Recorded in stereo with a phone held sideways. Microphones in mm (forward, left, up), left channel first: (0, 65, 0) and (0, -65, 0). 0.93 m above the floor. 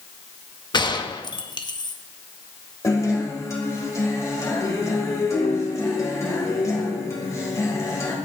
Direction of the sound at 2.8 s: 25° left (ahead or behind).